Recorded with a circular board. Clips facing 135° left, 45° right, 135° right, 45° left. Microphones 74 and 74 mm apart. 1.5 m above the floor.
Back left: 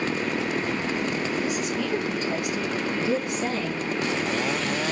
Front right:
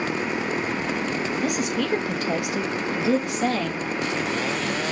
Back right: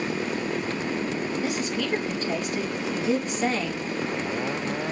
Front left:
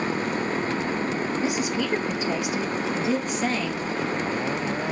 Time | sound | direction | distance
1.4 | a woman speaking | 25° right | 1.7 m